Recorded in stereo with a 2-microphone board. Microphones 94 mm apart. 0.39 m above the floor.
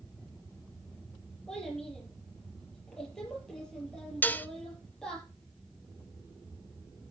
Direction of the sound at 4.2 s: 20° left (ahead or behind).